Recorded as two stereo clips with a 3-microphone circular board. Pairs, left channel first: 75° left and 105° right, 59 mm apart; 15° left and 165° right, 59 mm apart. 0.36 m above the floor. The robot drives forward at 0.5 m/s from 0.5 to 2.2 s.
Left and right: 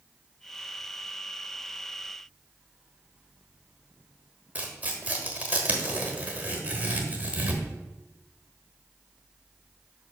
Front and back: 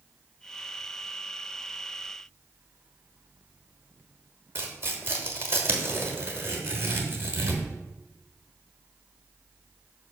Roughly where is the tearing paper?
Behind right.